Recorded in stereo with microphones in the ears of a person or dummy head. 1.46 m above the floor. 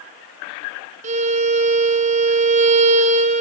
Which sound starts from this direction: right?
A violin, at 1.0 s.